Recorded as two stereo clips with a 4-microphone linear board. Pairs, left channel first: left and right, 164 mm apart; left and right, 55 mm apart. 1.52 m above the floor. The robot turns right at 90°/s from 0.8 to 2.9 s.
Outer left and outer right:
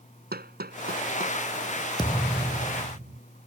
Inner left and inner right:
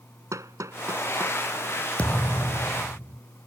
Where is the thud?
150° left; by 3.2 s 125° right.